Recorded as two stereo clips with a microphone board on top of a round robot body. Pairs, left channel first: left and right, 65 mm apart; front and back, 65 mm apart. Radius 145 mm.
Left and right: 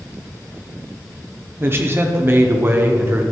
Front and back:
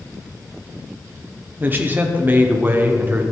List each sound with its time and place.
1.6 s a man speaking: 130° right, 1.3 m